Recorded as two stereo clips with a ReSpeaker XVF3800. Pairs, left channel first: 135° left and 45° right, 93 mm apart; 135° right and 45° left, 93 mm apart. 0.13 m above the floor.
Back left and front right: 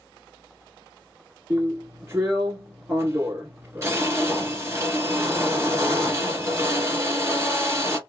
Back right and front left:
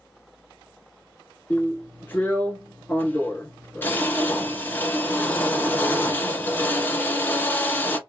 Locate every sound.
1.5 s a drill: 80° right, 1.2 m